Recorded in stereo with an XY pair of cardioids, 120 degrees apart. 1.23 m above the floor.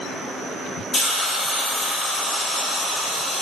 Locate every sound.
0.9 s a hiss: 10° left, 1.2 m